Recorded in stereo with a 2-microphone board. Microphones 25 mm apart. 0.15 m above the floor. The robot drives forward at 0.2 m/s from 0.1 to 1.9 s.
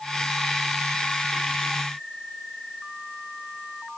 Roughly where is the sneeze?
No sneeze in this recording.